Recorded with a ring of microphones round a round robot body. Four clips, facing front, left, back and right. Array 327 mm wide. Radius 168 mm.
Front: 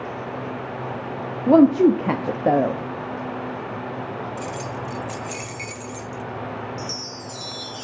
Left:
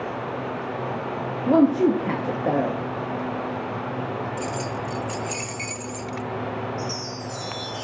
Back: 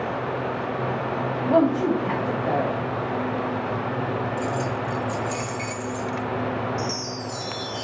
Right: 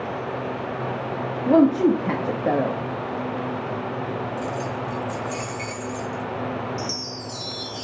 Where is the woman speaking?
5° right, 1.2 m.